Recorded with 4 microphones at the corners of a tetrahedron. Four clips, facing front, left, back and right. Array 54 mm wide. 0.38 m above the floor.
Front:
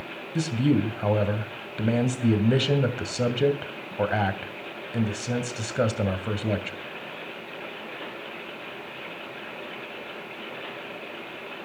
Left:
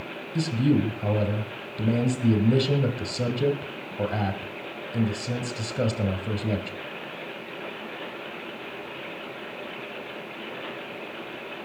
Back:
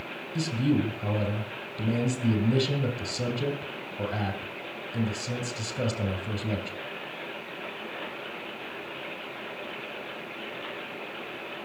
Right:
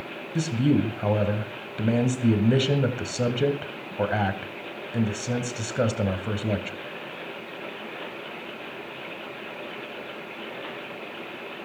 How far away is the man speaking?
About 2.5 m.